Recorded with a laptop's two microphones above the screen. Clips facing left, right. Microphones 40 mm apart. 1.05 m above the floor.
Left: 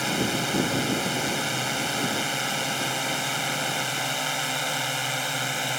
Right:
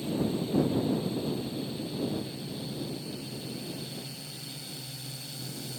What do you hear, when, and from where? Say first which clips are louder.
0.0 s a drone: left 5 dB; 80° left; by 5.8 s 65° left (ahead or behind)